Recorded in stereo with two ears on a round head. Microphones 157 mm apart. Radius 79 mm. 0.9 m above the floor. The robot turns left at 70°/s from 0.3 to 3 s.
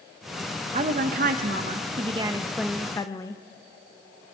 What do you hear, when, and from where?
0.7 s a woman speaking: 45° right, 0.6 m; by 3.4 s 155° left, 0.6 m